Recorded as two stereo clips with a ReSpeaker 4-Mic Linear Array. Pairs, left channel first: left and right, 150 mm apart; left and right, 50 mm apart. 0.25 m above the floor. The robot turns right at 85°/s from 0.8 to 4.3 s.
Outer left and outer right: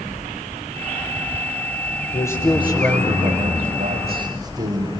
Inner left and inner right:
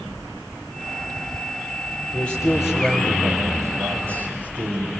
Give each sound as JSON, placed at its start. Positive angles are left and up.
{"t": 2.1, "sound": "a man speaking", "azimuth_deg": 150, "distance_m": 7.0}